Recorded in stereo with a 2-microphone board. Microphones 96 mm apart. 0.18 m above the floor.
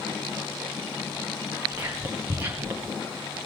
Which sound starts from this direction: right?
Whispering, at 1.7 s.